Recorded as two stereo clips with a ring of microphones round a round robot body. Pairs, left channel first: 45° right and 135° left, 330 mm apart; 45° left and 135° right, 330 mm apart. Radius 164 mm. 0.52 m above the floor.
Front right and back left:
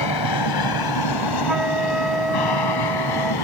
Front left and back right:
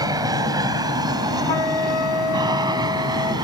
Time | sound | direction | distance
0.0 | an aircraft | 55° right | ?
1.5 | a flute | 50° left | ?